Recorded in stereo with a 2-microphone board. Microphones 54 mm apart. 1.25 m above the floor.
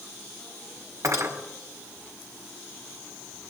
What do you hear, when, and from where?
1.0 s cutlery clinking: 75° right (ahead or behind), 4 m